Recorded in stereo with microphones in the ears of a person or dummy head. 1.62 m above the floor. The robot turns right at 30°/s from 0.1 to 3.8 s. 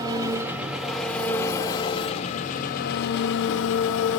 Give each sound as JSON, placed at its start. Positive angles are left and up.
{"t": 0.0, "sound": "an engine running", "azimuth_deg": -25, "distance_m": 0.8}